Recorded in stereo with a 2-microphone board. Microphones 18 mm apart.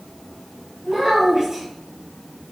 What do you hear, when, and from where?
0.8 s a child speaking: 15° right (ahead or behind), 3 m